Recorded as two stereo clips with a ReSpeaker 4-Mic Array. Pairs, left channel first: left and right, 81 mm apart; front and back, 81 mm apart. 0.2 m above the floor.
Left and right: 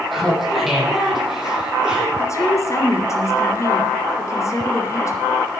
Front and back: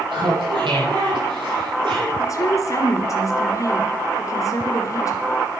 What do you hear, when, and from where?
0.1 s laughter: straight behind, 7.5 m; by 2.1 s 170° right, 8.5 m
2.2 s a woman speaking: 40° left, 2.5 m